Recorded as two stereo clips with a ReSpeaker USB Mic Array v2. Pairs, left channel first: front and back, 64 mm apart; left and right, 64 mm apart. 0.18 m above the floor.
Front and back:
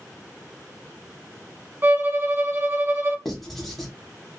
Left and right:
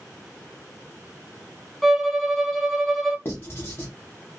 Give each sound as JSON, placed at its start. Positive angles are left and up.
{"t": 1.8, "sound": "a violin", "azimuth_deg": 170, "distance_m": 0.6}
{"t": 3.2, "sound": "writing", "azimuth_deg": 85, "distance_m": 1.0}